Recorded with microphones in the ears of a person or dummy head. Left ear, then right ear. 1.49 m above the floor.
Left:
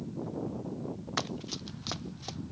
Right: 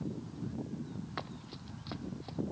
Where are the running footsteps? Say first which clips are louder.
Left 10 dB; 80° left.